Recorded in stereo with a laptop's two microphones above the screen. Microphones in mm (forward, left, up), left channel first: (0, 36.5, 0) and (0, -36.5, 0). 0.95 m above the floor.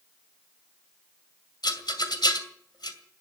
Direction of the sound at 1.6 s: 75° left (ahead or behind).